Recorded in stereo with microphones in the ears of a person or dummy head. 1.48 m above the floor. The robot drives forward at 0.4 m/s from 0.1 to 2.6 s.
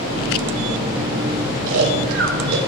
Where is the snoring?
75° right (ahead or behind), 3 m; by 2.6 s 85° right, 3 m.